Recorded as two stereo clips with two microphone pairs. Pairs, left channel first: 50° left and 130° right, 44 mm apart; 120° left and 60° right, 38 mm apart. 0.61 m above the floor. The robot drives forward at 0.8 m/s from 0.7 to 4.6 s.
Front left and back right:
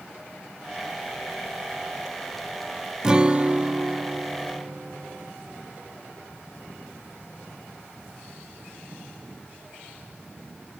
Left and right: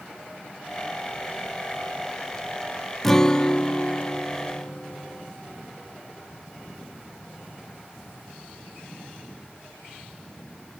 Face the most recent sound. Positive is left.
turn(degrees=180)